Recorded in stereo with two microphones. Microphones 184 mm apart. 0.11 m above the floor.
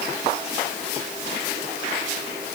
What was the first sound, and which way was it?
Only background noise.